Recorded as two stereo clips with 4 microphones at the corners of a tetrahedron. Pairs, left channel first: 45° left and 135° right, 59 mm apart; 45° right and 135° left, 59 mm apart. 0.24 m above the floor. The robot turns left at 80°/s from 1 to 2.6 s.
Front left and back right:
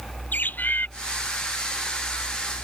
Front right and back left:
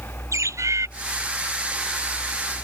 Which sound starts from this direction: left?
A bird, at 0.3 s.